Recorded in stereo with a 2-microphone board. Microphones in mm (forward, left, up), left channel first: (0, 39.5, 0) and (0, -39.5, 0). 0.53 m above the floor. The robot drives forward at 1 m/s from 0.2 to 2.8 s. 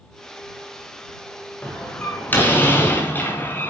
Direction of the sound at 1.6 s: 20° left (ahead or behind).